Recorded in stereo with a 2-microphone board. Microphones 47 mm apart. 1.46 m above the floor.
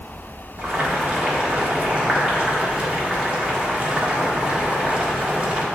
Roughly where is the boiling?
Right.